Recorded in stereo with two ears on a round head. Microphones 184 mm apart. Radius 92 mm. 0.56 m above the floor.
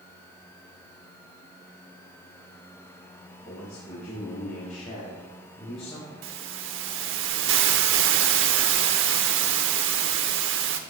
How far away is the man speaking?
About 5 m.